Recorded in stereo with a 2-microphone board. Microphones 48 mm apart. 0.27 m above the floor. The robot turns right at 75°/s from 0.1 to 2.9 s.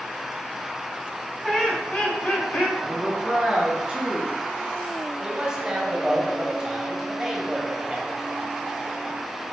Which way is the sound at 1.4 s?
5° left.